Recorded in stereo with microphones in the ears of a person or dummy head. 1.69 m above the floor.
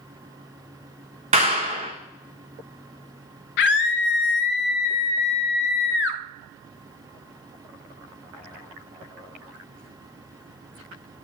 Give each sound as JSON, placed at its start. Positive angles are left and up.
{"t": 1.3, "sound": "a clap", "side_deg": -30, "distance_m": 1.2}
{"t": 3.6, "sound": "a scream", "side_deg": 65, "distance_m": 0.6}